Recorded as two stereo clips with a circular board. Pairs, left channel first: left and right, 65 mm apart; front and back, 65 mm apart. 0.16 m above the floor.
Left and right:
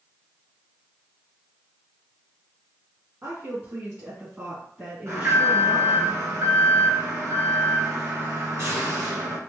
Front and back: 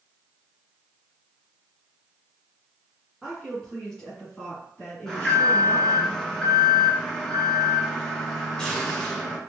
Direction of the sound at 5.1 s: 75° right.